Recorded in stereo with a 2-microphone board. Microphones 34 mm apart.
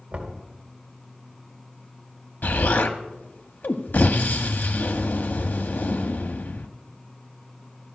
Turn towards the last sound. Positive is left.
turn(degrees=70)  # may be behind; listen again after turning